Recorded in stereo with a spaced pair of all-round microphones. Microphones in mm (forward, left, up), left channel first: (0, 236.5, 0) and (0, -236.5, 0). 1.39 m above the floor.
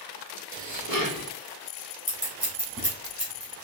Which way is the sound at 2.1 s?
5° right (ahead or behind).